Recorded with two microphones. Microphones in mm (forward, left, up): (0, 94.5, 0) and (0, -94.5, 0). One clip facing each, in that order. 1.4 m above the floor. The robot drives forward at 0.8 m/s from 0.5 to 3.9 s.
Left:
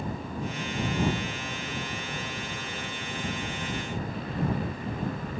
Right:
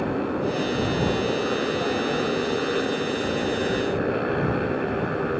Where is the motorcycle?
75° right (ahead or behind); by 5.4 s 70° right (ahead or behind).